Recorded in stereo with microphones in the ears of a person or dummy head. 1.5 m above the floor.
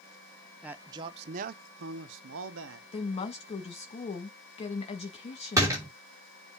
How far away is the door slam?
About 3 m.